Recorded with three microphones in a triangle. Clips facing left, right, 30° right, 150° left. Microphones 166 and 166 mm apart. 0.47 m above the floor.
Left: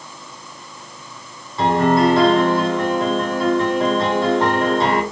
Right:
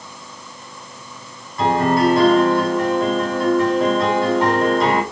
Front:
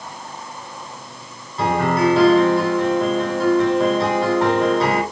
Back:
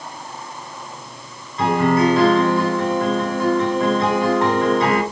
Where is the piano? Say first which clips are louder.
Left 1 dB, back 2 dB; 25° left, 3.5 m.